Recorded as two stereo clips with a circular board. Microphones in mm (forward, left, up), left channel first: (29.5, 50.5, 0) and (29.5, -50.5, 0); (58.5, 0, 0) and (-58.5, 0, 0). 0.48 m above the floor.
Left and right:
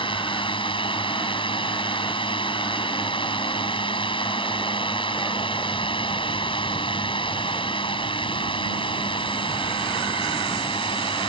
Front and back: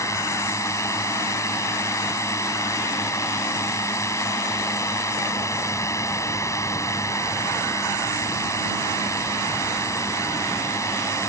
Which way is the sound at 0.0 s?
65° left.